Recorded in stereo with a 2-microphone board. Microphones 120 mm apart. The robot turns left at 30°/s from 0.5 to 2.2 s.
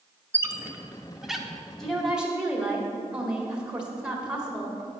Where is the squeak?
20° right (ahead or behind), 0.8 m; by 1.5 s centre (ahead or behind), 0.8 m.